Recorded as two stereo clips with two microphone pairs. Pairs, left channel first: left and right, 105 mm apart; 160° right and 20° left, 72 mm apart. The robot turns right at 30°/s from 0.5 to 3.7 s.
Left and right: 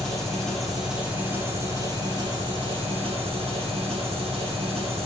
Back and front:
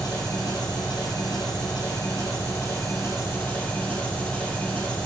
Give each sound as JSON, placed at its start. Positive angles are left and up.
{"t": 0.0, "sound": "an engine running", "azimuth_deg": 170, "distance_m": 2.5}